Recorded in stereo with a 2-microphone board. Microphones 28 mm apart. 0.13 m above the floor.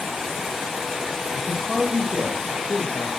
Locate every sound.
1.3 s a man speaking: 15° right (ahead or behind), 3 m; by 3.1 s 10° right (ahead or behind), 3.5 m